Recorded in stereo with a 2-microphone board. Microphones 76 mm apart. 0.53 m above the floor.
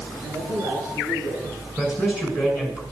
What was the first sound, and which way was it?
A man speaking, 45° right (ahead or behind).